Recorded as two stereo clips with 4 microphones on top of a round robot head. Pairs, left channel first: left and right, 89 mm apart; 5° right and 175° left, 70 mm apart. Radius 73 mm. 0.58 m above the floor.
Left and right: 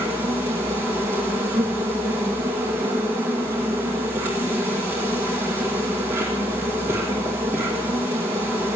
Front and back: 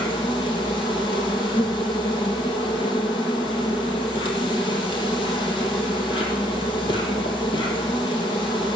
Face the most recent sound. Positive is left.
turn(degrees=-20)